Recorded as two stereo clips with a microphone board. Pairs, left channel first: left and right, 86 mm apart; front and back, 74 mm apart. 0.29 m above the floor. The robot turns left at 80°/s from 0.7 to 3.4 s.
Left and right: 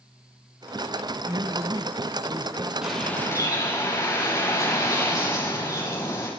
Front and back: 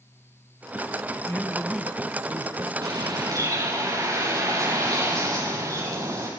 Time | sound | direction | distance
1.1 | a man speaking | 45° right | 1.5 m
2.8 | a bird | 170° right | 8.5 m